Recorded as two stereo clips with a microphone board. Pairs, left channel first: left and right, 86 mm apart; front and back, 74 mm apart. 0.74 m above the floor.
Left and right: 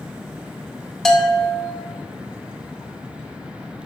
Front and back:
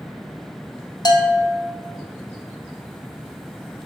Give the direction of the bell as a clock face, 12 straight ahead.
12 o'clock.